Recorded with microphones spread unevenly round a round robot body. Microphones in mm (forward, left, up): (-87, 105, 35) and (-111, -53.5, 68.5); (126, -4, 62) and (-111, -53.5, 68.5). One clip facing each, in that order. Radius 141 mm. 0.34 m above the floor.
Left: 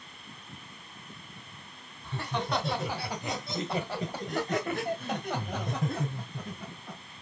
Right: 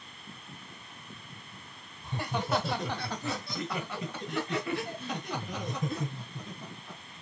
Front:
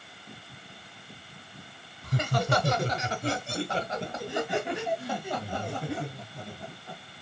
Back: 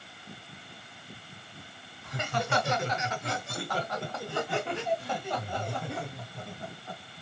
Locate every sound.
2.0 s laughter: 20° right, 1.2 m; by 7.0 s 105° left, 2.5 m